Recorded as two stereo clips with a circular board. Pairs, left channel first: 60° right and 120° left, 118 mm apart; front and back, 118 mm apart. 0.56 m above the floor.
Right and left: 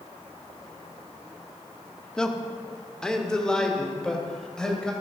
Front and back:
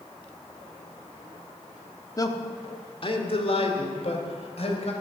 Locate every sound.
2.2 s a man speaking: 20° left, 1.1 m; by 4.9 s 25° left, 3 m